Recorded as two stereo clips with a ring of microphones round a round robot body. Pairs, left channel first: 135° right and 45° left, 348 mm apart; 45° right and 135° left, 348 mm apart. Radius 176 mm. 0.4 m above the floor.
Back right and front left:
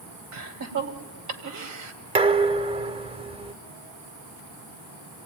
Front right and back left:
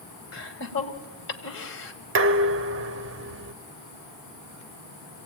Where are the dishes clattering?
110° left, 0.8 m.